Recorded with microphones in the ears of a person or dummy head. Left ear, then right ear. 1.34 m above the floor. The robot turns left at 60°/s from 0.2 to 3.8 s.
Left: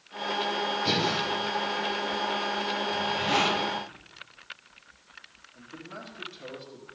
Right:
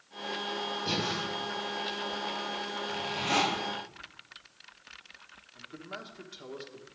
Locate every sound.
0.8 s breathing: 35° left (ahead or behind), 4 m; by 1.2 s 15° left (ahead or behind), 4 m
2.9 s a zipper: 60° right, 3 m; by 3.5 s 100° right, 3 m
5.5 s a man speaking: 45° right (ahead or behind), 1.6 m